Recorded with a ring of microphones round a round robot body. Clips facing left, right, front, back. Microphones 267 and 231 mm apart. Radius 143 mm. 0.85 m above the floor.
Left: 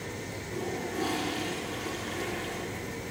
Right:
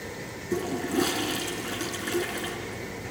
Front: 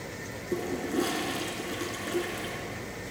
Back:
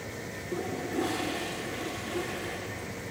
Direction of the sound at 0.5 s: 65° right.